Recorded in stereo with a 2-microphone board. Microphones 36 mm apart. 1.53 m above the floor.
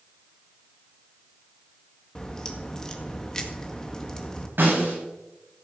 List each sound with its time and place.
2.1 s a crack: 20° left (ahead or behind), 1.9 m
4.6 s a snare drum: 70° right (ahead or behind), 8.5 m